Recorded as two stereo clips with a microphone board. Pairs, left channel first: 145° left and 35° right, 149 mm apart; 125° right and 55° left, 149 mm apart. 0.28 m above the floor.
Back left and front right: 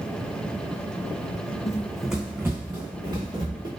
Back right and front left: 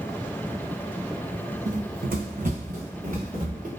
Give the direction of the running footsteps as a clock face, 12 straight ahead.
9 o'clock.